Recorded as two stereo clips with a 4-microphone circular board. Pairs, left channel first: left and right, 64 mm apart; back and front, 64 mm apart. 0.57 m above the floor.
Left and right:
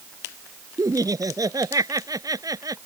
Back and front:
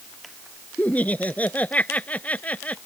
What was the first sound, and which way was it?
Laughter, 115° right.